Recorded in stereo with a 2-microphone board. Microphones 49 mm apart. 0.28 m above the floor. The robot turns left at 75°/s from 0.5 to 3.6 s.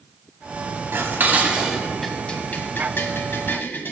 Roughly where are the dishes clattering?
Right.